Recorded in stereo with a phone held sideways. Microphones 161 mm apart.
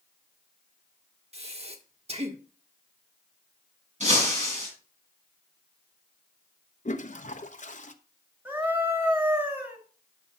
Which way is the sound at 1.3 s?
40° right (ahead or behind).